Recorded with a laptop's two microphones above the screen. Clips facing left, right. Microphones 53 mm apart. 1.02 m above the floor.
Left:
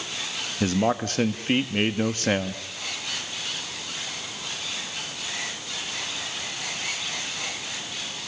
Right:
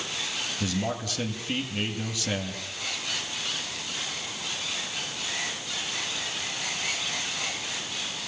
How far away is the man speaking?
About 1.2 m.